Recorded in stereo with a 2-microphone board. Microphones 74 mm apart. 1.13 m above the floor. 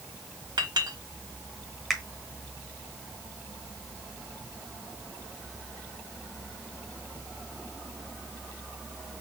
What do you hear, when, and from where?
0.6 s a clink: 75° right (ahead or behind), 1.4 m
1.9 s a finger snap: 5° left (ahead or behind), 0.9 m